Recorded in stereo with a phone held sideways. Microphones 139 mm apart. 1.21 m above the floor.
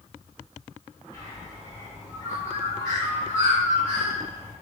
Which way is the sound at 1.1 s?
25° left (ahead or behind).